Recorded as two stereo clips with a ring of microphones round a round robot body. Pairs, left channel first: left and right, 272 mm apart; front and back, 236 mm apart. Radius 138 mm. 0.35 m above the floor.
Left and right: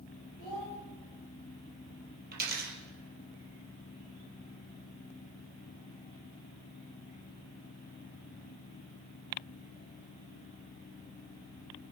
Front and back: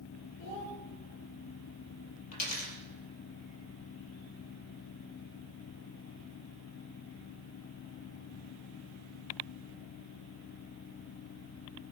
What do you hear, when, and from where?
0.4 s a child speaking: 30° left, 8 m
2.3 s a dropped coin: 35° right, 4 m